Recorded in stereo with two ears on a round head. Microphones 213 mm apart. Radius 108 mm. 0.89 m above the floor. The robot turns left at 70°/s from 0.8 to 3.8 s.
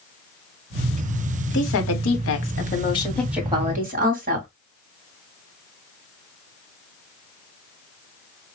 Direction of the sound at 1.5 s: 120° left.